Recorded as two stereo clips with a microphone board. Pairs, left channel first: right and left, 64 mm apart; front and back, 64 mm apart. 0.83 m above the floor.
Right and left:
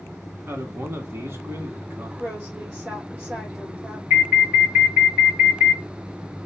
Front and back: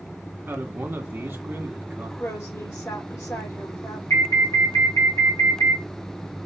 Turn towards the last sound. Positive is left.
turn(degrees=30)